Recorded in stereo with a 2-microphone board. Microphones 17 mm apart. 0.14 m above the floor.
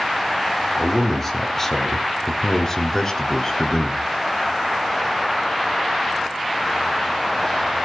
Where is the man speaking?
20° left (ahead or behind), 3 m; by 4.1 s 35° left (ahead or behind), 2 m.